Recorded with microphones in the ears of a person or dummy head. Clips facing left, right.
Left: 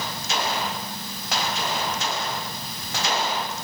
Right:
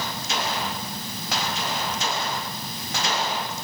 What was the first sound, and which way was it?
Only background noise.